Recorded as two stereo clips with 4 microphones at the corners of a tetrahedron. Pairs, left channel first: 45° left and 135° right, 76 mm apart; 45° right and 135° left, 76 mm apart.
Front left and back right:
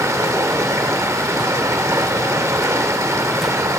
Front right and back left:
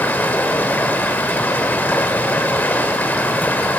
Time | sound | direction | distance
0.0 | running water | 100° right | 1.1 m